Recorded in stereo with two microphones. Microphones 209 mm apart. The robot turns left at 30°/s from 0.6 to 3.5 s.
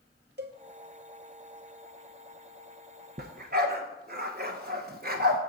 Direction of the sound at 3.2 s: 50° right (ahead or behind).